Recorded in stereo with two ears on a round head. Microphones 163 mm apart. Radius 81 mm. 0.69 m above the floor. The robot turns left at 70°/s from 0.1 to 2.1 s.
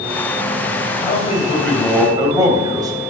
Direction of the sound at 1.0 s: 55° left.